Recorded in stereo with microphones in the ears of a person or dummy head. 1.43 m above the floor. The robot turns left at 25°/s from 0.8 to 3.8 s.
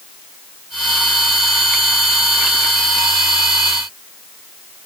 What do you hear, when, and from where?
Only background noise.